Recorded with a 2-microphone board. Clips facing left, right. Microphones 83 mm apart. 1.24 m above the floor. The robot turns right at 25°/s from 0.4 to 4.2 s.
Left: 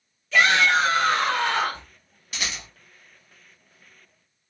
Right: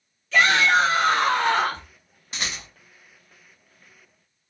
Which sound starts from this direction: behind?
A shout, at 0.3 s.